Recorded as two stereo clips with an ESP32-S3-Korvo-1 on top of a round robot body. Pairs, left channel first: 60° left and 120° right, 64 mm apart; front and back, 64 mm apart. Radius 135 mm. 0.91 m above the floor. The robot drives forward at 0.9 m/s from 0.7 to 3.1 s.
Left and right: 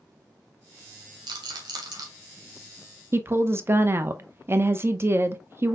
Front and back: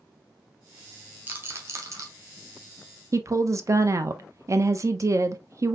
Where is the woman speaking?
160° right, 0.6 m.